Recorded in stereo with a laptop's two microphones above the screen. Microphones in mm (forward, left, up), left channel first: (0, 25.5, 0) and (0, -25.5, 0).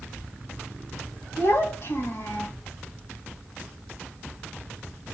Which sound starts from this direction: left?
A child speaking, at 1.4 s.